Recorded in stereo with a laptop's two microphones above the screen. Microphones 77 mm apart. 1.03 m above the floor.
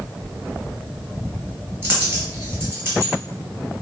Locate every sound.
1.8 s a dropped coin: 35° right (ahead or behind), 1.4 m